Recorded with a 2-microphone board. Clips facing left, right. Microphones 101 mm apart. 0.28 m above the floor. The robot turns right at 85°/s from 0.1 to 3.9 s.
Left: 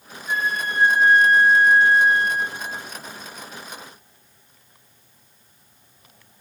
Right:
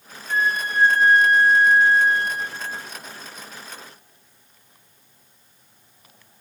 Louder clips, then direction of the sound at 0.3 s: Right 2 dB; 50° right.